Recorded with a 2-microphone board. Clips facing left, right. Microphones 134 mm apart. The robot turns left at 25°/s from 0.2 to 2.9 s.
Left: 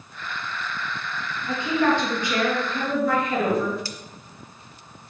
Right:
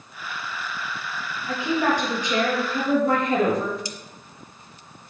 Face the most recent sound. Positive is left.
turn(degrees=-20)  # may be behind; listen again after turning